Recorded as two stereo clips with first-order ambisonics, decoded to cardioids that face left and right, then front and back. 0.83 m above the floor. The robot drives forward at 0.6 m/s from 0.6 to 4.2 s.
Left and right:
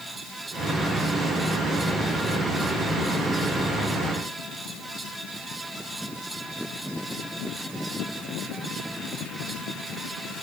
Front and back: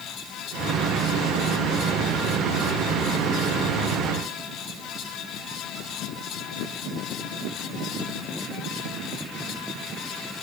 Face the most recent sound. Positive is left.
No sound to turn to.